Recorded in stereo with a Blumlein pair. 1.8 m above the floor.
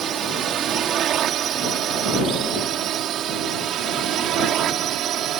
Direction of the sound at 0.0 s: 25° right.